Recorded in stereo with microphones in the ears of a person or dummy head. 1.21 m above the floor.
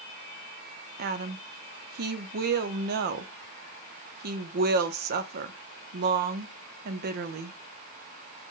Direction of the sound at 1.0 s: 55° right (ahead or behind).